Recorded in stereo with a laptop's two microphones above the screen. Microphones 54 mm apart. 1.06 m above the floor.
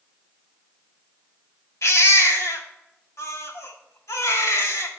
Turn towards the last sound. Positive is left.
turn(degrees=80)